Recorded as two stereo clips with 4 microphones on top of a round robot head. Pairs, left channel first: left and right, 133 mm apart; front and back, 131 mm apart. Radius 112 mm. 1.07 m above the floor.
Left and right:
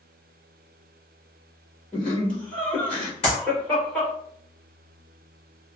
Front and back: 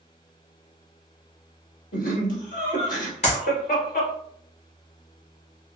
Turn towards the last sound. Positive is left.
turn(degrees=35)